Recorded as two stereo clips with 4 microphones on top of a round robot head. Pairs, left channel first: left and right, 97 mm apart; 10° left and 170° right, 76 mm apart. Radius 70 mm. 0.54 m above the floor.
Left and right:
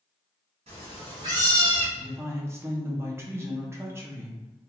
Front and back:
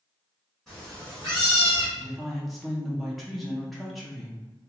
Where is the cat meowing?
75° right, 1.5 m; by 1.9 s 20° right, 1.2 m.